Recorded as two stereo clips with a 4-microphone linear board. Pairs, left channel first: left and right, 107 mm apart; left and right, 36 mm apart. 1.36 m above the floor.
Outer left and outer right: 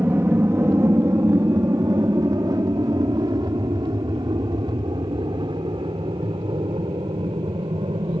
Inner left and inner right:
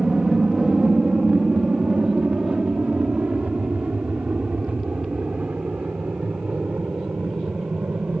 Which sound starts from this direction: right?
An aircraft, at 0.0 s.